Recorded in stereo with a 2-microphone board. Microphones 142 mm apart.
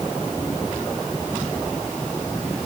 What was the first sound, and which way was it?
Only background noise.